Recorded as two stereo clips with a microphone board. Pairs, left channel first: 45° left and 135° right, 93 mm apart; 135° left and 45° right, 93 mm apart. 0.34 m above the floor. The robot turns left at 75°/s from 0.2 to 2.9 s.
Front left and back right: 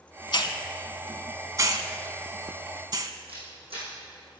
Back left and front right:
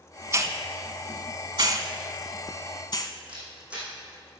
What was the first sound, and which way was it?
A hiss, 15° left.